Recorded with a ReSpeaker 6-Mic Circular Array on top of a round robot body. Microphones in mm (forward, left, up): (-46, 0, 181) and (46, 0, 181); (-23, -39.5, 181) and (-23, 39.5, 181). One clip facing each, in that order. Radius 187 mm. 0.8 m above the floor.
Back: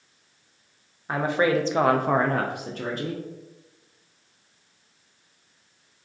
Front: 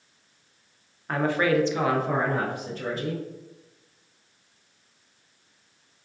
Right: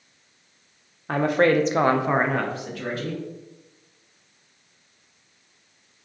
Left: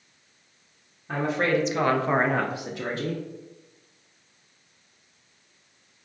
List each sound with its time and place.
1.1 s a woman speaking: 100° right, 0.7 m; by 3.2 s 145° left, 0.8 m